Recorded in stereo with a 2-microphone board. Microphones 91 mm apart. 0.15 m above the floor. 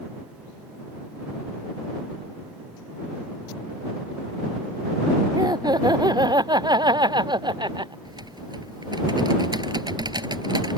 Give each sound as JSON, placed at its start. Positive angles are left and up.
{"t": 5.3, "sound": "laughter", "side_deg": -45}
{"t": 8.1, "sound": "typing on a keyboard", "side_deg": -55}